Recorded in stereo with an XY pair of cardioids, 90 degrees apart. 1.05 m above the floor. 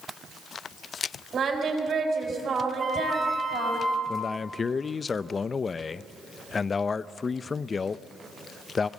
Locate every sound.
1.3 s singing: 55° right, 5.5 m
2.8 s a flute: 30° right, 3.5 m
4.1 s a man speaking: 40° left, 0.6 m